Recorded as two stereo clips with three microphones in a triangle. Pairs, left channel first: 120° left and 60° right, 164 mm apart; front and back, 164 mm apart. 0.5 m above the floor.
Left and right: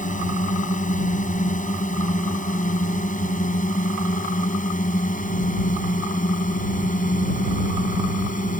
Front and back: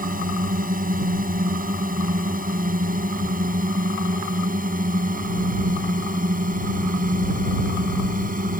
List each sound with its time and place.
0.0 s a drone: 155° left